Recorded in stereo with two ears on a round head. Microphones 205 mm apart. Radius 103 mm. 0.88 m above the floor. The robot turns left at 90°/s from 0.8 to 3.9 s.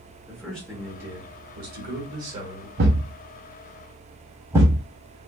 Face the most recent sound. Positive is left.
turn(degrees=-10)  # may be behind; listen again after turning